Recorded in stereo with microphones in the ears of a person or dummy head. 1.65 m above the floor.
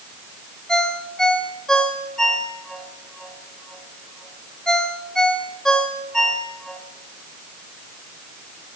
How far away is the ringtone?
About 3 m.